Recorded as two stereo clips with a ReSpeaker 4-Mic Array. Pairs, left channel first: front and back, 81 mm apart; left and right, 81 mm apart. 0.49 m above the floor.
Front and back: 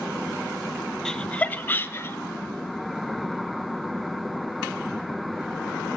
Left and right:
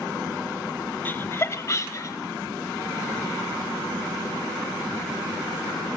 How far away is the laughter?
About 0.7 m.